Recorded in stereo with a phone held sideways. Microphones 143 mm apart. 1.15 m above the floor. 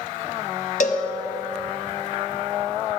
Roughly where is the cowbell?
Left.